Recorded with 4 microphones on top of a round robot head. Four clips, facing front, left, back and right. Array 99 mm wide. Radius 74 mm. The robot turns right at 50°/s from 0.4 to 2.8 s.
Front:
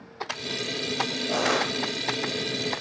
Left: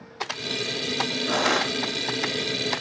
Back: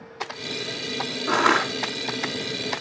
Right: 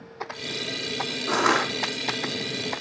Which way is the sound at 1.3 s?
165° right.